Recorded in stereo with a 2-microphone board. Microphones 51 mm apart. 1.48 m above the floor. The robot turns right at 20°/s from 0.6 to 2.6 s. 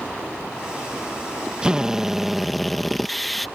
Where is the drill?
15° right (ahead or behind); by 3.5 s centre (ahead or behind).